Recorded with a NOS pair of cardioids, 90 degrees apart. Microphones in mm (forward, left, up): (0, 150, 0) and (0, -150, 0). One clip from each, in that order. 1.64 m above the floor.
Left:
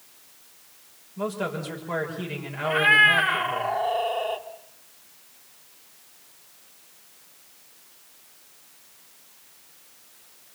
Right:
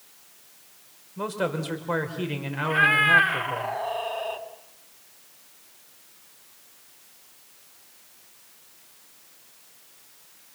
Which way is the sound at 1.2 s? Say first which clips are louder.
Right 1 dB; 35° right.